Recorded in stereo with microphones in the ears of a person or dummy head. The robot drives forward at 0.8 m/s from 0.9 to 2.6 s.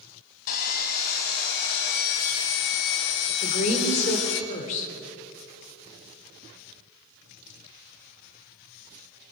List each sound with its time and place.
0.5 s sawing: 55° left (ahead or behind), 2.5 m; by 4.4 s 65° left (ahead or behind), 2 m
3.4 s a woman speaking: 45° left (ahead or behind), 3.5 m